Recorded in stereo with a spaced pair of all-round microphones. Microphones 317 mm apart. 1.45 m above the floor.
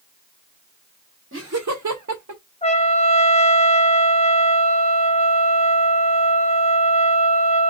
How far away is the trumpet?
About 0.7 m.